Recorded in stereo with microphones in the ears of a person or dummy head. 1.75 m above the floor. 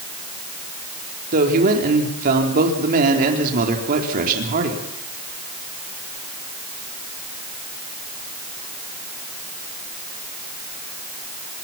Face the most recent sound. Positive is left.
turn(degrees=-50)  # may be behind; listen again after turning